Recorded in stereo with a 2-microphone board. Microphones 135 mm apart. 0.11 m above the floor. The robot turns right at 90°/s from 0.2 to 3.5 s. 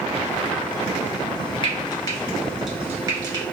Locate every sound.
1.6 s frying: 35° left (ahead or behind), 1.2 m; by 3.4 s 35° right (ahead or behind), 1.2 m